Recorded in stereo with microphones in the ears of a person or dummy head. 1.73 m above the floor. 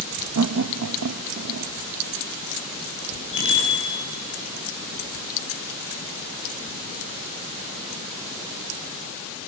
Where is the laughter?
75° right (ahead or behind), 0.6 m.